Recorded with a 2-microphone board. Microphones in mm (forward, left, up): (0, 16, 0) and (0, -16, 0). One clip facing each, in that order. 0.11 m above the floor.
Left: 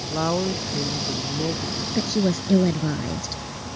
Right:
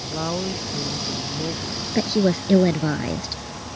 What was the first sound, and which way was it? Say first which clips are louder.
A woman speaking: left 3 dB; 15° left (ahead or behind).